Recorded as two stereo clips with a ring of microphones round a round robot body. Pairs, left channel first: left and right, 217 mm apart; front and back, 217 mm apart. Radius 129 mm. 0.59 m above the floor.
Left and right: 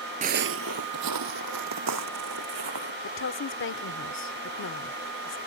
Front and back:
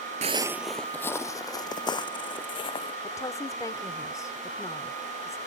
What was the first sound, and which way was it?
Footsteps, 135° right.